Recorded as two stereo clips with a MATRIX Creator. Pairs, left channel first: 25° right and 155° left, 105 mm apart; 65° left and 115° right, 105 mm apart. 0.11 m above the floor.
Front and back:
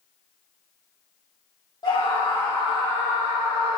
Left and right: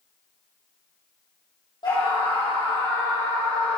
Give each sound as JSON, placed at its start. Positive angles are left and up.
{"t": 1.8, "sound": "a scream", "azimuth_deg": 25, "distance_m": 4.5}